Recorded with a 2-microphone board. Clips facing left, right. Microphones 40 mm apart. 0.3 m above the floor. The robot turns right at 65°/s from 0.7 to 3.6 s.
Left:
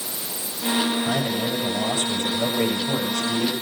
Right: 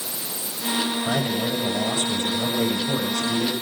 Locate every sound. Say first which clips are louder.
1.0 s a man speaking: even; 20° right, 8 m; by 3.5 s 145° left, 8 m